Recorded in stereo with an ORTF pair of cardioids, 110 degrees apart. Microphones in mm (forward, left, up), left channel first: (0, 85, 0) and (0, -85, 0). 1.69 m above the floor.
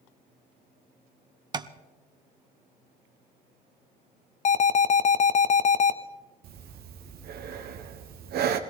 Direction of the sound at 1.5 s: 25° right.